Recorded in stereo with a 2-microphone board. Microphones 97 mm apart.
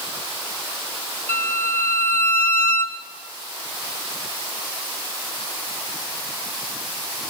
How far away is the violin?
About 1.9 m.